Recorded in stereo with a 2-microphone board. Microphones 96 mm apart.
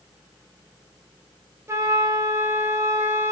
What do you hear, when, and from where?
1.7 s a flute: 30° right (ahead or behind), 0.8 m